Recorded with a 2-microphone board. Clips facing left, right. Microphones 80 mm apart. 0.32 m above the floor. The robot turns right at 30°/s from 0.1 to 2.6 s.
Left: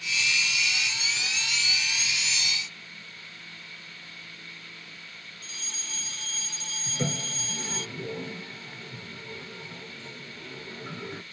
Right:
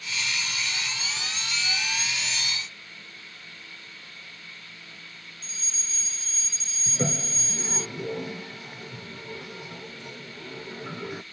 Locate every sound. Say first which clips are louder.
5.4 s a fire alarm: left 1 dB; 65° left (ahead or behind)
6.9 s a toilet flushing: right 3 dB; 15° right (ahead or behind)